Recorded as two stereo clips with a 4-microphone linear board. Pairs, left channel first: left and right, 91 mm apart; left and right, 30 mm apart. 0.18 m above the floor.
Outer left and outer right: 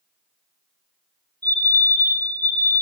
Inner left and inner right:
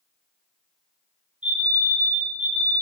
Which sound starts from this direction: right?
A fire alarm, at 1.4 s.